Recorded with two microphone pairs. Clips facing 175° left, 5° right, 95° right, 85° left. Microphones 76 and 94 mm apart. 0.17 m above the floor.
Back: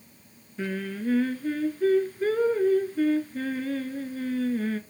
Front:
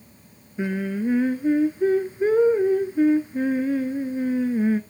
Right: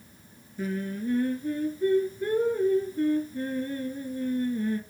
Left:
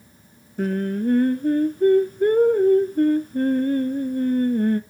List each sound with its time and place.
0.6 s singing: 65° left, 0.6 m